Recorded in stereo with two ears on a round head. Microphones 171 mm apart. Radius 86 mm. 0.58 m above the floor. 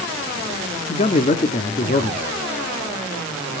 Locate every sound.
0.9 s a man speaking: 35° left (ahead or behind), 1.3 m